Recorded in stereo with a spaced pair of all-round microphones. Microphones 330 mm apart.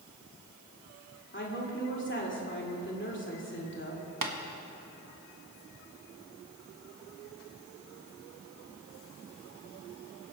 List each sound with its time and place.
1.3 s a woman speaking: 35° left (ahead or behind), 2.5 m
4.2 s tapping: 75° right (ahead or behind), 1.3 m